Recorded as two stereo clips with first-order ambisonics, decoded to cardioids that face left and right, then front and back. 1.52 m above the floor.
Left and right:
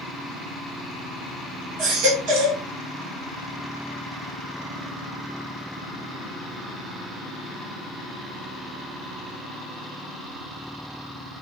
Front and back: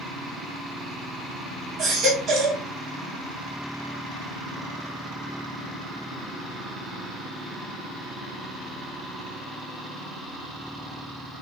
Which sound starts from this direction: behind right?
A baby crying, at 1.8 s.